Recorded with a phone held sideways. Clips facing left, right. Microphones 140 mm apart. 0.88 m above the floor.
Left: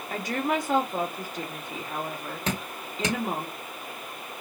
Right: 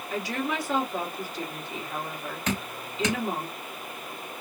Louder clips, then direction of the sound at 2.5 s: Right 1 dB; 30° left (ahead or behind).